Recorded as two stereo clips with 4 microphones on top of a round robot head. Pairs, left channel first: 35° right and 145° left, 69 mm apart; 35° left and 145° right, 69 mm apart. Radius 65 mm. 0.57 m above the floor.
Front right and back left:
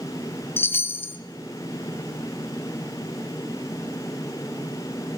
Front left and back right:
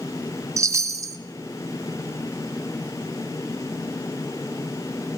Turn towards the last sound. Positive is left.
turn(degrees=-100)